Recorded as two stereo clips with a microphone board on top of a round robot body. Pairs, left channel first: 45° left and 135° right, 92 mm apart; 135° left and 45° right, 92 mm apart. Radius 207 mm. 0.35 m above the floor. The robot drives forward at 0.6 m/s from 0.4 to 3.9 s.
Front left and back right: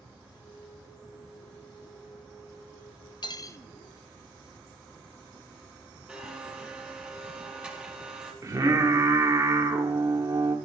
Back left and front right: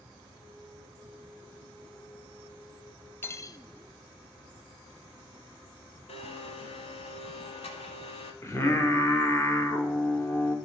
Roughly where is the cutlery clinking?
Left.